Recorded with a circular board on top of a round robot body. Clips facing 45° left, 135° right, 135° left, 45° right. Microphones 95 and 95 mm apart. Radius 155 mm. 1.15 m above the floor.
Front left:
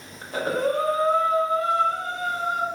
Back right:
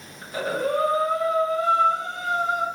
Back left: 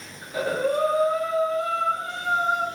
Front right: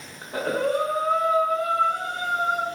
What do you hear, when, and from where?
0.2 s breathing: 5° right, 1.3 m